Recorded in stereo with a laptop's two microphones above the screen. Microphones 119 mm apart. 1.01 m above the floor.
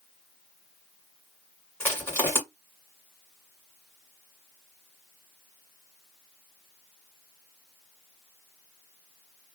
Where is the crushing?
15° left (ahead or behind), 1.4 m.